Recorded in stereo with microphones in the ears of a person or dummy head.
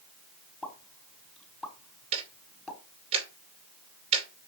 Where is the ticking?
35° right (ahead or behind), 2.5 m.